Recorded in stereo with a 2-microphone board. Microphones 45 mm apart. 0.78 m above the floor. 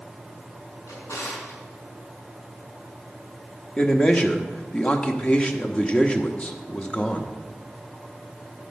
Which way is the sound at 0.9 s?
90° left.